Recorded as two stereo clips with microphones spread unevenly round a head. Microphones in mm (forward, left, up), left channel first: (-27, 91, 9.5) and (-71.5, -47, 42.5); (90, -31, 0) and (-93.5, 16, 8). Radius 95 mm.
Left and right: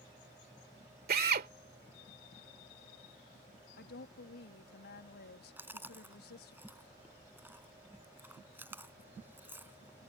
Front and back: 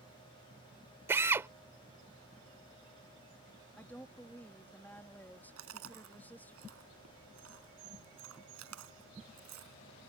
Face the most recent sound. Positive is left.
turn(degrees=180)